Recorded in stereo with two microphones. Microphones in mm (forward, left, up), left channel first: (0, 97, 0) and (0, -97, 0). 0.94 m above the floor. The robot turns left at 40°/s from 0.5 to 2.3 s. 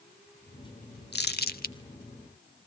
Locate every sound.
1.1 s crumpling: 60° left (ahead or behind), 1.0 m; by 1.8 s 45° left (ahead or behind), 1.0 m